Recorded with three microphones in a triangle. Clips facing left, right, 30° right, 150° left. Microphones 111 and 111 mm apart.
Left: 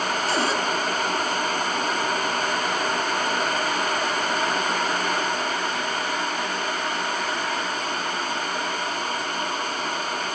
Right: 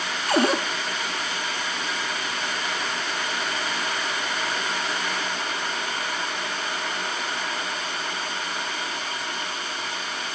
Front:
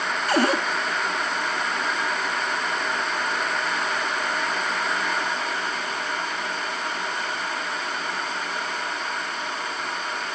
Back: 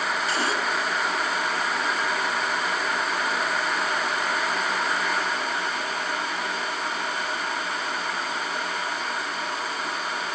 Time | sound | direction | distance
0.3 | a cupboard door | 60° right | 1.3 m